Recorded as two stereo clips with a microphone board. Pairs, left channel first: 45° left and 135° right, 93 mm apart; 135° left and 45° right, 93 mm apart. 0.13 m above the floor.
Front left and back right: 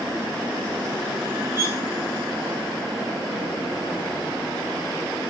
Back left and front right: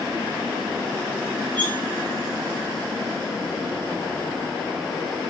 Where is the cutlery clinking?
75° right, 2 m.